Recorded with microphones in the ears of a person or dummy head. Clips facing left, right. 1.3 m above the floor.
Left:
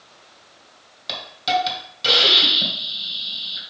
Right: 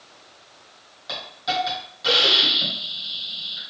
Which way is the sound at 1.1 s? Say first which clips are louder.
Left 5 dB; 45° left (ahead or behind).